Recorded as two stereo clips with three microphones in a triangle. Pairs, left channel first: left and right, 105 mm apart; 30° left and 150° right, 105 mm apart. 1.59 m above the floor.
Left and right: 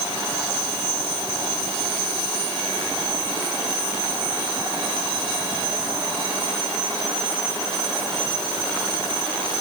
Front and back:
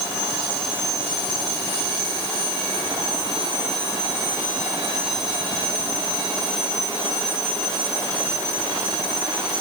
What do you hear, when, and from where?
Only background noise.